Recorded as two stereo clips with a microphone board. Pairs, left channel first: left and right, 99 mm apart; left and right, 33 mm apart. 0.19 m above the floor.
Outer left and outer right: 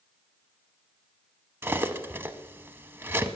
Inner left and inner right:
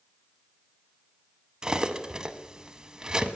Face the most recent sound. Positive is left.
turn(degrees=-25)  # may be behind; listen again after turning